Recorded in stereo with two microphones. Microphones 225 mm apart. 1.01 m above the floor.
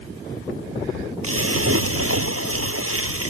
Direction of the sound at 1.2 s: 80° right.